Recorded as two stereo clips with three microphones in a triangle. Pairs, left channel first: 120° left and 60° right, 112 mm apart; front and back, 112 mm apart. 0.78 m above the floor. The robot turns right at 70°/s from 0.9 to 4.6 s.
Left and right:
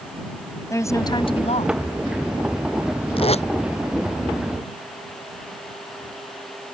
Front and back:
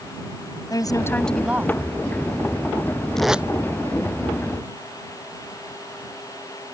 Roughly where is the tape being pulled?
Left.